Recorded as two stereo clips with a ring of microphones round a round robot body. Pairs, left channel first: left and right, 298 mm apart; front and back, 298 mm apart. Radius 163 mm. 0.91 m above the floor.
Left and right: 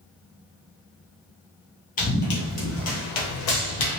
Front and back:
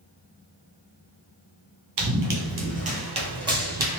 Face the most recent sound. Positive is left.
turn(degrees=100)